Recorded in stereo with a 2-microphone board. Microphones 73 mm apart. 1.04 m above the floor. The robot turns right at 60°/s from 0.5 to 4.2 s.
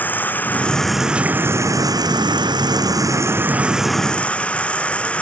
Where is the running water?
155° left; by 5.2 s 20° left.